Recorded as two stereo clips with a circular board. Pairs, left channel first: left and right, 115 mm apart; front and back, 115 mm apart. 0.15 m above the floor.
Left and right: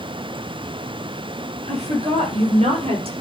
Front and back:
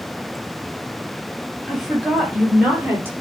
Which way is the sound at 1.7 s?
95° right.